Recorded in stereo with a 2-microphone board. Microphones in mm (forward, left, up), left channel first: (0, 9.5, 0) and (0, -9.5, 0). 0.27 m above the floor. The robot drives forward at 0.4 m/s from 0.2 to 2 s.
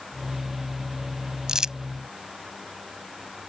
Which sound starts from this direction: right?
Crumpling, at 1.5 s.